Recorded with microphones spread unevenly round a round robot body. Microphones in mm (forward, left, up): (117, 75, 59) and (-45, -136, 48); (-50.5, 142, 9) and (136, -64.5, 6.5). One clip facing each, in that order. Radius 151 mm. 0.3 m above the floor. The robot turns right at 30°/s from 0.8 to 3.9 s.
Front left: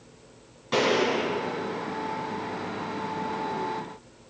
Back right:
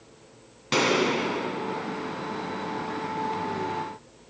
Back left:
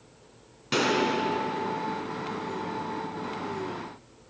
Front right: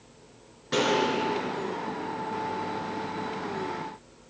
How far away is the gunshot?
About 1.7 m.